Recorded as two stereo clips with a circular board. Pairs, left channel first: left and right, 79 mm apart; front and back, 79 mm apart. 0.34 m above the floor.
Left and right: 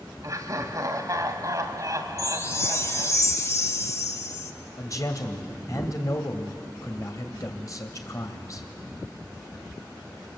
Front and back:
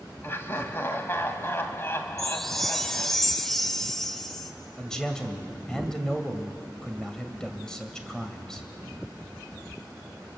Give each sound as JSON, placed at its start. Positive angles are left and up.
{"t": 0.2, "sound": "laughter", "azimuth_deg": -55, "distance_m": 2.5}
{"t": 2.2, "sound": "a chime", "azimuth_deg": 85, "distance_m": 1.2}
{"t": 4.8, "sound": "a man speaking", "azimuth_deg": 80, "distance_m": 2.0}